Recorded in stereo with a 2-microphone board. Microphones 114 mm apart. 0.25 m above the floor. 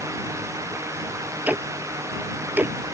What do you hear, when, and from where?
1.5 s ticking: 15° right (ahead or behind)